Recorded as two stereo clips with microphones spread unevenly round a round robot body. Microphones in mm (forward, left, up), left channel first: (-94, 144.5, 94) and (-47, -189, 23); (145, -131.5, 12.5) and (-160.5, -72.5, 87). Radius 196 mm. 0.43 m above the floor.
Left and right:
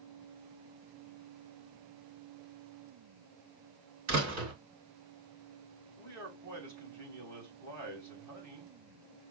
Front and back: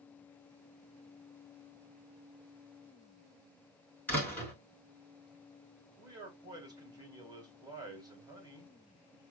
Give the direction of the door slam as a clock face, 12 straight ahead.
3 o'clock.